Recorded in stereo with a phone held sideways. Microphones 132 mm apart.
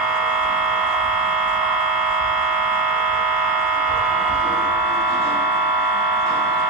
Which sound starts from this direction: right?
A machine running, at 0.0 s.